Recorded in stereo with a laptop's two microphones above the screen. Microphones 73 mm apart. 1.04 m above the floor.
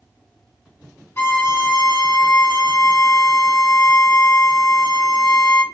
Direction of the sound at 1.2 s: 35° left (ahead or behind).